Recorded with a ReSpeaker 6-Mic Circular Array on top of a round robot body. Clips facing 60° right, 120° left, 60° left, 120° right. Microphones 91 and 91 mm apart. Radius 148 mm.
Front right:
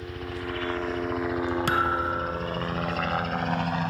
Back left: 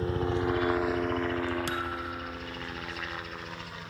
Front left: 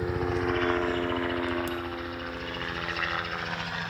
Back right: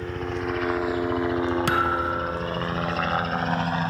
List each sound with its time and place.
0.0 s a helicopter: 135° left; by 3.9 s 75° right
1.7 s a thud: 100° right